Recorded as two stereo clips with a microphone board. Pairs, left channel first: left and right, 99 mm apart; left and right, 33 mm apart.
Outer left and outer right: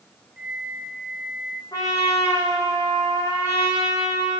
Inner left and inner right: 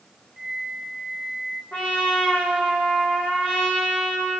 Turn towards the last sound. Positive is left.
turn(degrees=40)  # may be behind; listen again after turning